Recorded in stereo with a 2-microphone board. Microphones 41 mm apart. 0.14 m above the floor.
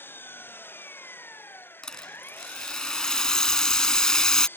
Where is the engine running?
60° left (ahead or behind).